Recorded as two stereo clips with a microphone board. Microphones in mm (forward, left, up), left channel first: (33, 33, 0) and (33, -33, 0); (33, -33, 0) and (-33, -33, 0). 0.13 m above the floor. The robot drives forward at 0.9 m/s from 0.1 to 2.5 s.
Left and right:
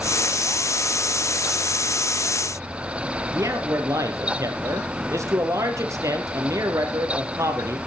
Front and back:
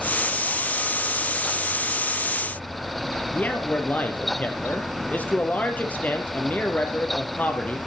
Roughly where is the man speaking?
Ahead right.